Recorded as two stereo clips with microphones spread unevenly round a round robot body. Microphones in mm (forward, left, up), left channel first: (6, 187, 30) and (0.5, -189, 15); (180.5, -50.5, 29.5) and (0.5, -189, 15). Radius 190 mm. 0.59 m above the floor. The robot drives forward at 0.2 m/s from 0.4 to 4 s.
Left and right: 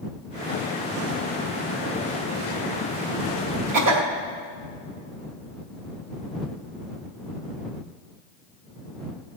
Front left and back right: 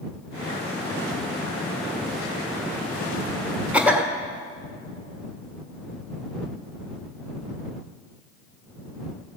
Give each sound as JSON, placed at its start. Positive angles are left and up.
{"t": 3.7, "sound": "a cough", "azimuth_deg": -60, "distance_m": 1.7}